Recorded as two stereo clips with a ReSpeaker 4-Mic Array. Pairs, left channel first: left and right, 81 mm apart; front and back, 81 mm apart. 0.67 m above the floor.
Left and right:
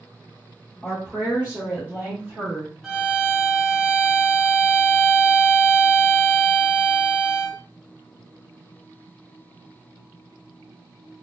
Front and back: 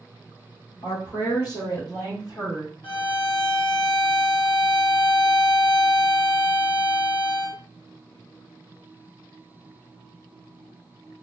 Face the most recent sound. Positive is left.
turn(degrees=0)